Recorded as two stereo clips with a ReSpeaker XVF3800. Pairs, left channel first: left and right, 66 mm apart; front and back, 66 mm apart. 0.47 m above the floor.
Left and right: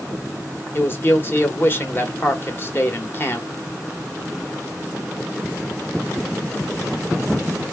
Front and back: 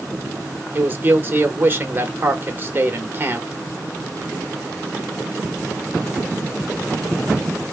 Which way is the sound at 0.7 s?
135° left.